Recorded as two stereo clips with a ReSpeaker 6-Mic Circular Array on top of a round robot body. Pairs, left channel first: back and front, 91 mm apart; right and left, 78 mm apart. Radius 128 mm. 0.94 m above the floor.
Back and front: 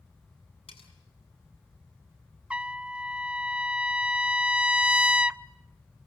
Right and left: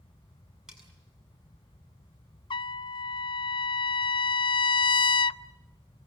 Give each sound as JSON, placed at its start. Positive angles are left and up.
{"t": 0.7, "sound": "cutlery clinking", "azimuth_deg": 170, "distance_m": 7.0}
{"t": 2.5, "sound": "a trumpet", "azimuth_deg": -80, "distance_m": 0.5}